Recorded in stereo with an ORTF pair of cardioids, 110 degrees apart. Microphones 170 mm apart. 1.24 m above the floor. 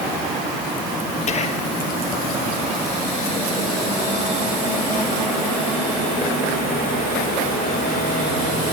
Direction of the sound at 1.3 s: 40° left.